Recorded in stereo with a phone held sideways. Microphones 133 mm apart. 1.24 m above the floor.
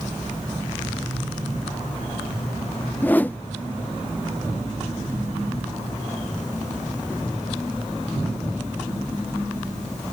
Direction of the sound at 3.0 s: 15° left (ahead or behind).